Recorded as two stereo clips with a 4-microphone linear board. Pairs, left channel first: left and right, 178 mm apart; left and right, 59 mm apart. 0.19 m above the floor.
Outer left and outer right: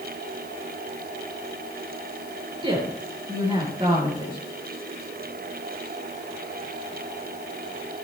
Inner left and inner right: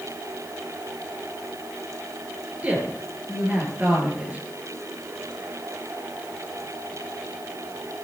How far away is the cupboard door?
No cupboard door in this recording.